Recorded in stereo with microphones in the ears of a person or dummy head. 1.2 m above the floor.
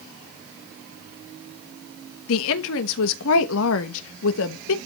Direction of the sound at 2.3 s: 75° left (ahead or behind).